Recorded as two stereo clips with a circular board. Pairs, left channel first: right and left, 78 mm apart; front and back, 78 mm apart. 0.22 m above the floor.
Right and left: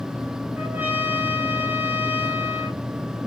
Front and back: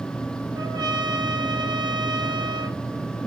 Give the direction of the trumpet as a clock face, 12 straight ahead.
7 o'clock.